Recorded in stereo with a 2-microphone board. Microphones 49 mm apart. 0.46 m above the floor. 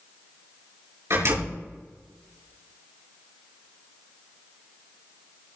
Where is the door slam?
65° right (ahead or behind), 6 m.